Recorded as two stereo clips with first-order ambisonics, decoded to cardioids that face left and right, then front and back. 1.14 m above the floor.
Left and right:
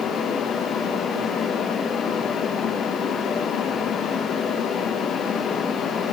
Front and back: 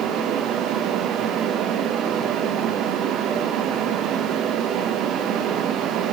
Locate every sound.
Only background noise.